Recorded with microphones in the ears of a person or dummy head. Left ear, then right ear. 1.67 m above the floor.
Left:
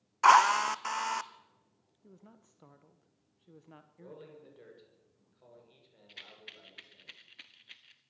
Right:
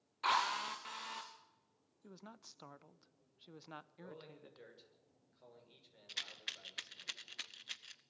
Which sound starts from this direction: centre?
A man speaking, at 4.0 s.